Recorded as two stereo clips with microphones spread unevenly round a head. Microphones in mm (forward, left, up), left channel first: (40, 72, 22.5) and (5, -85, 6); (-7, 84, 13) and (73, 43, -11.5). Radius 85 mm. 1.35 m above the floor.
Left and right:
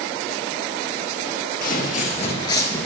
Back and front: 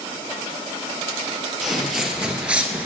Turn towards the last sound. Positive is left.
turn(degrees=60)